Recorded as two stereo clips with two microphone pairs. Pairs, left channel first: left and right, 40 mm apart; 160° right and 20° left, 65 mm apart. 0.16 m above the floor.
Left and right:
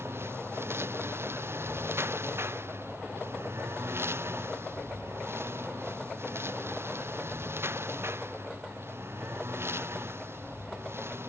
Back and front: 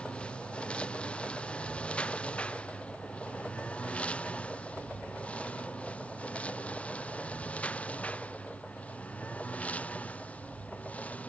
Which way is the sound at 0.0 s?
85° right.